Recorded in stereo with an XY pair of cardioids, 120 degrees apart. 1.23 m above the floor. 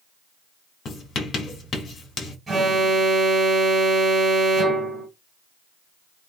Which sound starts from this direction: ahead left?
Writing, at 0.8 s.